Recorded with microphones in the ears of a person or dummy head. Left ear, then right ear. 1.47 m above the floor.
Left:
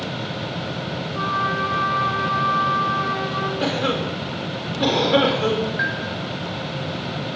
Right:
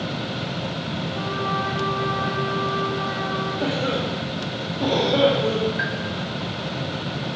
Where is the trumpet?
40° left (ahead or behind), 7.5 m.